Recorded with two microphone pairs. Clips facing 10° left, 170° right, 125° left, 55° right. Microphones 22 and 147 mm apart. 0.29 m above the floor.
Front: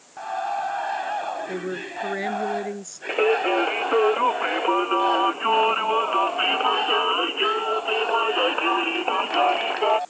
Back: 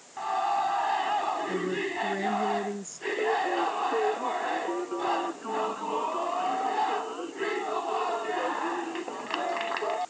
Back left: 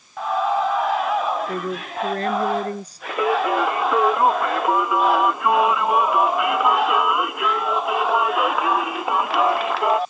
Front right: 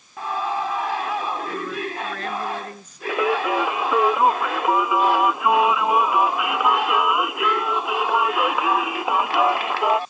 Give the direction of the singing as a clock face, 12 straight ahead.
11 o'clock.